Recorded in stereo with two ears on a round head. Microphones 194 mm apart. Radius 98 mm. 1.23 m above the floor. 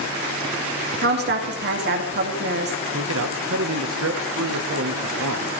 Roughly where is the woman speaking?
Right.